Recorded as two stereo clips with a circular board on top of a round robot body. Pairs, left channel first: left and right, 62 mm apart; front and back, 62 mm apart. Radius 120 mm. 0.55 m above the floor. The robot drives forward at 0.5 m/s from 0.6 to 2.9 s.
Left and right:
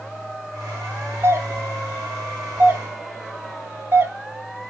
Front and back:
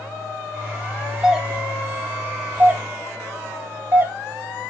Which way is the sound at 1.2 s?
105° right.